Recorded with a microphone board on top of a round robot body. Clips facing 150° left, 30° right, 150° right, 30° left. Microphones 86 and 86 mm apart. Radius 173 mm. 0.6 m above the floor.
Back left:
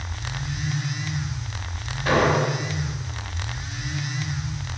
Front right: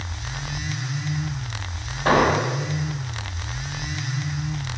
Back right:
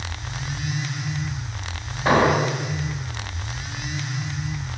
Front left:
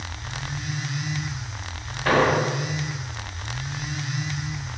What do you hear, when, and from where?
2.0 s an explosion: 80° right, 3.5 m